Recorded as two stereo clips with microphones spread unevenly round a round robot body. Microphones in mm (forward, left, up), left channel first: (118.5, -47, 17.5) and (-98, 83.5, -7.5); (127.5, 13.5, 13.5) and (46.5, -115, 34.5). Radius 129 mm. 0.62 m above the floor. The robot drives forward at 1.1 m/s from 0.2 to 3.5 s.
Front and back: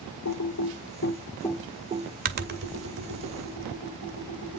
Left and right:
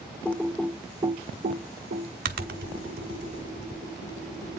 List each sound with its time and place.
0.2 s typing on a keyboard: 20° right, 1.3 m; by 4.6 s 170° right, 2.5 m